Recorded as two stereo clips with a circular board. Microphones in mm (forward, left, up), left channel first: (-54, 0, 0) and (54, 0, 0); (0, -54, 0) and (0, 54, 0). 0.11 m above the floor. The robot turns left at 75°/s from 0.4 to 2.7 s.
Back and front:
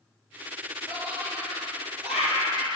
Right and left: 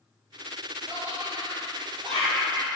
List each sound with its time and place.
0.9 s laughter: 175° left, 2.5 m; by 2.8 s 35° left, 2.5 m